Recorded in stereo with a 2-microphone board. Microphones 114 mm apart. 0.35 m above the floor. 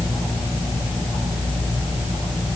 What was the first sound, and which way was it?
Only background noise.